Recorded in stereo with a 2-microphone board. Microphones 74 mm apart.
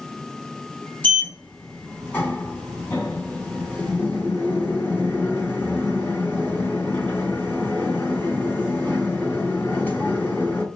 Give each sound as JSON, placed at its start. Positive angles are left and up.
{"t": 1.0, "sound": "a sliding door", "side_deg": 25, "distance_m": 1.1}